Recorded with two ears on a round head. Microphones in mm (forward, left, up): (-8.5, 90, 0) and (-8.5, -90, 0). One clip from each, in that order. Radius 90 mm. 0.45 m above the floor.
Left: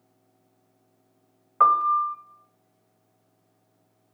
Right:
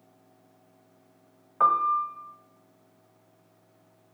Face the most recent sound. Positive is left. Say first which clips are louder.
# left 3 dB
turn(degrees=30)  # may be behind; listen again after turning